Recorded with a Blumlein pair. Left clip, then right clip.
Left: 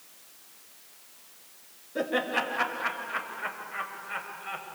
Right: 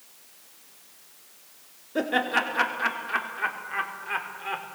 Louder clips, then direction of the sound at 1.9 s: Right 3 dB; 70° right.